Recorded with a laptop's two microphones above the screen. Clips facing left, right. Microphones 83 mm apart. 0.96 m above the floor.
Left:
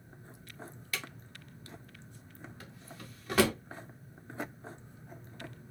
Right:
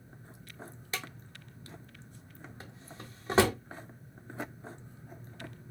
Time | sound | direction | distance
0.9 | a drawer | 25° right (ahead or behind) | 0.6 m